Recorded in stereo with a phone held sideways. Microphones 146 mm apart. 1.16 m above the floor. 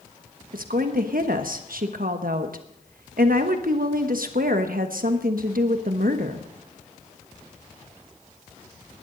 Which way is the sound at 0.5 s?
75° right (ahead or behind).